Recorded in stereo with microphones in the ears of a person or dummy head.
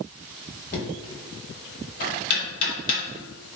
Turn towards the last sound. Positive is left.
turn(degrees=45)  # may be behind; listen again after turning